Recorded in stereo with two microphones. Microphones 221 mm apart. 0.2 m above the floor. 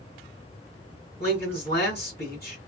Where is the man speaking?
50° left (ahead or behind), 2.5 m.